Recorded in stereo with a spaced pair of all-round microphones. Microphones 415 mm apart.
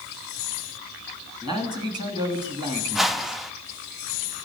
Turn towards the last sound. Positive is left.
turn(degrees=0)  # may be behind; listen again after turning